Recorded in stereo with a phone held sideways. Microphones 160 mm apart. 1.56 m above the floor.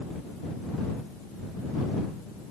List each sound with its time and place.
Only background noise.